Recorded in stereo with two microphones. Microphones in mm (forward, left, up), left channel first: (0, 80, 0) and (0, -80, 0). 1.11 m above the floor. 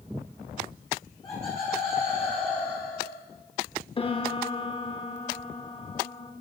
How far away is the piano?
About 0.8 m.